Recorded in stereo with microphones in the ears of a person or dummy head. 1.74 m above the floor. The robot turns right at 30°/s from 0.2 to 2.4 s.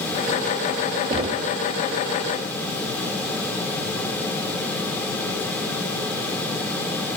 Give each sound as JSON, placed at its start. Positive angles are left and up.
{"t": 1.1, "sound": "knocking", "side_deg": -25, "distance_m": 0.6}